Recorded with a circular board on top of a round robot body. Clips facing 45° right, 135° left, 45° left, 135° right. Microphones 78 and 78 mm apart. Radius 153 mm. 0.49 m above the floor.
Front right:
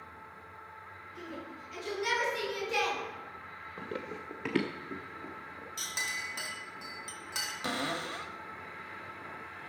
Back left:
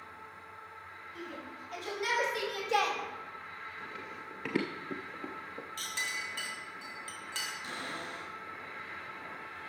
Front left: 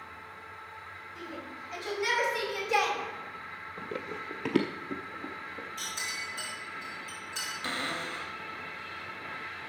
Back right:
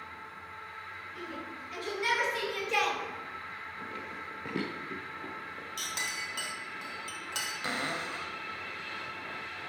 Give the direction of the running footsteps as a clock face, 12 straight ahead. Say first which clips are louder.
Front right 4 dB, front left 6 dB; 12 o'clock.